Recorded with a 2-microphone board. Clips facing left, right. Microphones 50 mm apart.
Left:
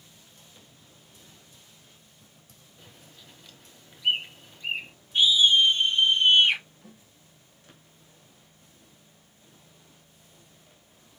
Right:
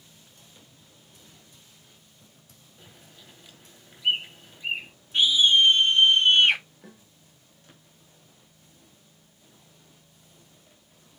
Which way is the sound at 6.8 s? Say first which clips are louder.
Right 2 dB; 75° right (ahead or behind).